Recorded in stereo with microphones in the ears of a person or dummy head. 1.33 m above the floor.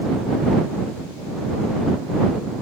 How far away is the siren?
I don't hear a siren.